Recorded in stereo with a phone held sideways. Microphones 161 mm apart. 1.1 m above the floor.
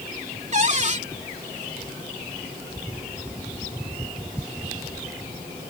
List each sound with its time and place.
0.5 s a cupboard door: 45° right (ahead or behind)